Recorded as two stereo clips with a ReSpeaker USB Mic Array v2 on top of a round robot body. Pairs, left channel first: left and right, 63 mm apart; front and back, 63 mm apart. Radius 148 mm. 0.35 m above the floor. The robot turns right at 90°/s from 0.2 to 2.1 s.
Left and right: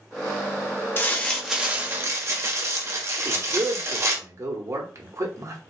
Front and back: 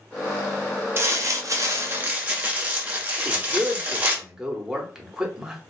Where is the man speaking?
105° right, 1.4 m.